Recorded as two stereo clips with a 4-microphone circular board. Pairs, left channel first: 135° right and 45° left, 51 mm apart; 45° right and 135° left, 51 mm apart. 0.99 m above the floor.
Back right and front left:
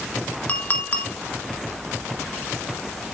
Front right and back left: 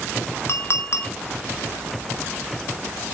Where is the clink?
75° right, 1.8 m.